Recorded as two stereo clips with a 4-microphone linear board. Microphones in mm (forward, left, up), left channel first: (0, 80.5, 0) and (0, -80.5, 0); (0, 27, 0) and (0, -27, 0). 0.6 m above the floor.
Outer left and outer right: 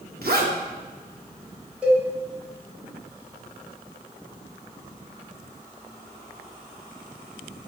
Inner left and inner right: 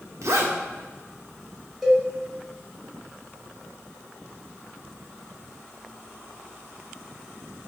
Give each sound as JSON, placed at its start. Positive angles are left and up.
{"t": 0.2, "sound": "a zipper", "side_deg": -70, "distance_m": 0.6}
{"t": 1.8, "sound": "a cowbell", "side_deg": -5, "distance_m": 1.2}